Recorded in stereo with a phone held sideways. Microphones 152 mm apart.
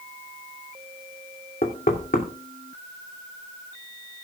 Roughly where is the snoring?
No snoring in this recording.